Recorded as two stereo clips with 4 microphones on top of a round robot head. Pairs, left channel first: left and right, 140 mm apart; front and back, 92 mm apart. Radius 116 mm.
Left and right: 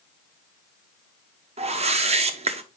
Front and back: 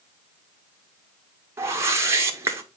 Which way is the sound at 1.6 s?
120° right.